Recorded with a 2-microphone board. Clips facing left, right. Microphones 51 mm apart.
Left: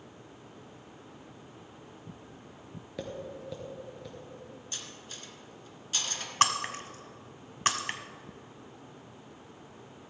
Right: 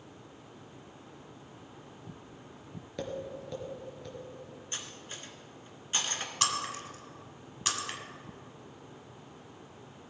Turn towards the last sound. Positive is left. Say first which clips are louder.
# left 6 dB
turn(degrees=40)  # may be behind; listen again after turning